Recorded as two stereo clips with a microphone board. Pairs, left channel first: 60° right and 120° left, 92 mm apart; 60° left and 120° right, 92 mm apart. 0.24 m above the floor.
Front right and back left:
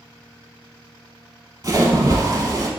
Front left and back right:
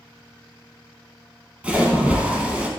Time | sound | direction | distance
1.6 | a splash | 165° left | 0.6 m